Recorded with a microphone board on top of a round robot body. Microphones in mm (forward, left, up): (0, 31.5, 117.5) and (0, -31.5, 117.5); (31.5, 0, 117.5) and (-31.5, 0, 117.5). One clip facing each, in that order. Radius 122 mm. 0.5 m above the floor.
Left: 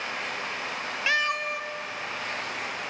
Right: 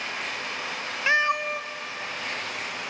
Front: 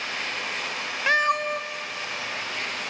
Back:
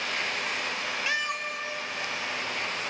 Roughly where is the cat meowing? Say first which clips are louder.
Right 4 dB, front 12 dB; ahead right.